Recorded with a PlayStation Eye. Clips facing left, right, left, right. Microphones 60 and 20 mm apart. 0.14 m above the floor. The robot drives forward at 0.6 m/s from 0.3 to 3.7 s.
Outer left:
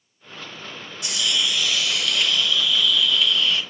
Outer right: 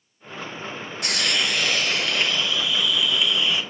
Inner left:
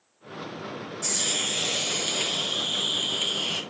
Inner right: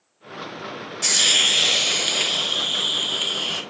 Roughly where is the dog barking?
No dog barking in this recording.